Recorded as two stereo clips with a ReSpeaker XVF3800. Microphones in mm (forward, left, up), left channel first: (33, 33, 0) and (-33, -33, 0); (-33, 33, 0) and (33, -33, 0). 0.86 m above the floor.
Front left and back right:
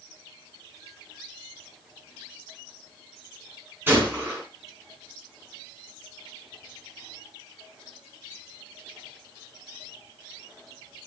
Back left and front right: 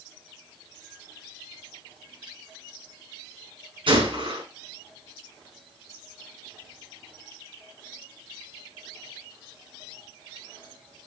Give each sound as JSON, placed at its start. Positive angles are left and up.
{"t": 3.9, "sound": "a gunshot", "azimuth_deg": -65, "distance_m": 5.5}